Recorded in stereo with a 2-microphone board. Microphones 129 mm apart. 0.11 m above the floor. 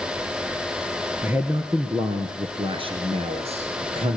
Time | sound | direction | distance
1.2 | a man speaking | 15° right (ahead or behind) | 1.8 m